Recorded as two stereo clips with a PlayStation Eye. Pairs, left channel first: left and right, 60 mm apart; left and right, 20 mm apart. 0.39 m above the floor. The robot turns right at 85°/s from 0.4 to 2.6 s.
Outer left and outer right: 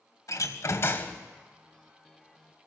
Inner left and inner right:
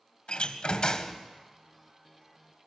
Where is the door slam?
95° left, 1.4 m; by 1.2 s 160° left, 1.4 m.